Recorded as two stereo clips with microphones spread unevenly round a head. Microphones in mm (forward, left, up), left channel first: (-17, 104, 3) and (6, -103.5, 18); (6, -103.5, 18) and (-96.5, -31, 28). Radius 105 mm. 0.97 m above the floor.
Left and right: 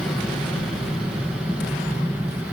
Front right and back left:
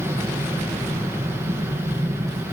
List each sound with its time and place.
0.0 s an aircraft: 175° right; by 2.5 s 165° right